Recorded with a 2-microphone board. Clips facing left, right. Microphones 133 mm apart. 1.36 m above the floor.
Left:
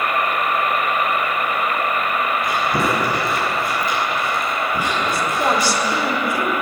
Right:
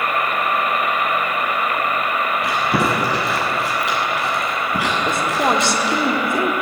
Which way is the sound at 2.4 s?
75° right (ahead or behind).